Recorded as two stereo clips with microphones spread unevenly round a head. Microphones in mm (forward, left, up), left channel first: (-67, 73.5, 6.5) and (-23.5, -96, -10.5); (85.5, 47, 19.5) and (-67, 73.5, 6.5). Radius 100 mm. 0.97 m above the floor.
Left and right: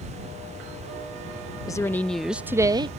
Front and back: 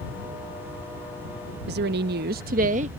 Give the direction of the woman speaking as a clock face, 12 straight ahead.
6 o'clock.